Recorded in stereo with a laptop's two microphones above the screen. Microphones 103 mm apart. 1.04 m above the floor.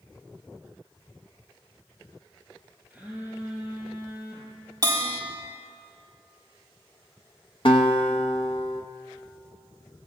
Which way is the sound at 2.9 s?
10° right (ahead or behind).